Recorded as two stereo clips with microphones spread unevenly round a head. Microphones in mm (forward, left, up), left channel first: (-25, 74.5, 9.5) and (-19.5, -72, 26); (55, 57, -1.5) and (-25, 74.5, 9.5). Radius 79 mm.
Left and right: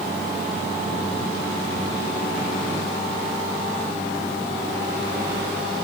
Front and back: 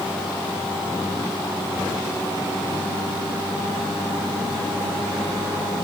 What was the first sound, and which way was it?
Only background noise.